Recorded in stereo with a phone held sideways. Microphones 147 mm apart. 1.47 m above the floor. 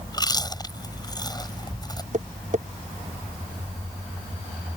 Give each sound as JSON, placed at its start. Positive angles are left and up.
{"t": 0.1, "sound": "chewing", "side_deg": 25}
{"t": 2.1, "sound": "tapping", "side_deg": -55}